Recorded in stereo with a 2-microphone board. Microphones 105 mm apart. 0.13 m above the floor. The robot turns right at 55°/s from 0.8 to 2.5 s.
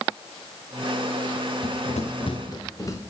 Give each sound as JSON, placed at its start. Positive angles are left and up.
{"t": 1.6, "sound": "running footsteps", "side_deg": 60, "distance_m": 1.1}